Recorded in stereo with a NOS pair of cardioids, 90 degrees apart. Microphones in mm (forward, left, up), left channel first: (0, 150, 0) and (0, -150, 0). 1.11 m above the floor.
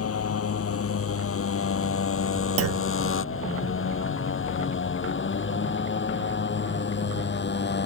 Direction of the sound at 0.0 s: 50° left.